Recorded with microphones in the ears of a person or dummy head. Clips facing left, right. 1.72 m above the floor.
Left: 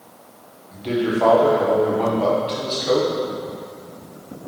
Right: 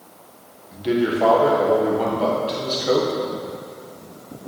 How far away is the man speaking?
About 0.9 m.